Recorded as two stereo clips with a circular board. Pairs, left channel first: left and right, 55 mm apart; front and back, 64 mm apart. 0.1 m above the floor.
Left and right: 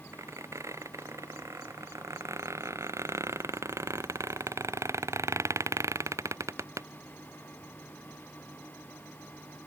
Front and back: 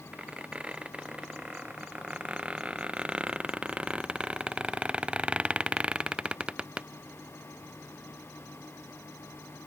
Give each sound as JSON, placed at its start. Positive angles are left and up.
{"t": 0.1, "sound": "a squeak", "azimuth_deg": -105}